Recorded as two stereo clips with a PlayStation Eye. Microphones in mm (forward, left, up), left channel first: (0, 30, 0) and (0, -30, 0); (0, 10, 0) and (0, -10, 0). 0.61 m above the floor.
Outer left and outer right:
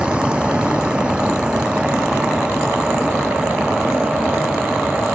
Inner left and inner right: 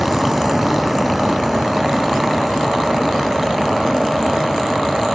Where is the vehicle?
15° right (ahead or behind).